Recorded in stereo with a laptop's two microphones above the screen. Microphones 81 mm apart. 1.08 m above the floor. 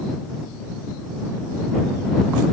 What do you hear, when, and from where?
Only background noise.